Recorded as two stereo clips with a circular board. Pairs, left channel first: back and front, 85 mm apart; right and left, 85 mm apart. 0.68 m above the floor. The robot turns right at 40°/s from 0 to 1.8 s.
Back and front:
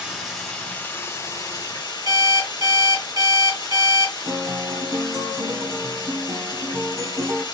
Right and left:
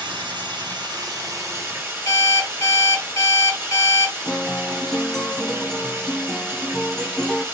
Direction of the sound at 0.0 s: 80° left.